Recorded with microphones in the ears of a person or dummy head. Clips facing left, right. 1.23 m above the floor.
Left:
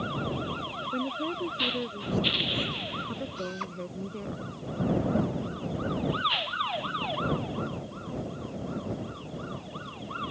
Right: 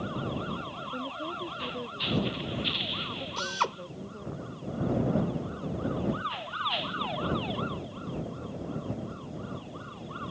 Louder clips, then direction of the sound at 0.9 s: Left 6 dB; 30° left (ahead or behind).